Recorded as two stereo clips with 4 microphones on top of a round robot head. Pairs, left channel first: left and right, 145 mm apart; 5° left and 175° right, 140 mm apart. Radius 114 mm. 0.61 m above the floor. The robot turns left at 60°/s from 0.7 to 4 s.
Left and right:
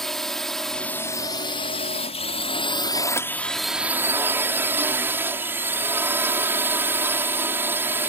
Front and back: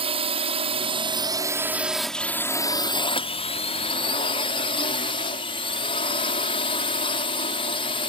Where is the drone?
175° left; by 8.1 s 20° right.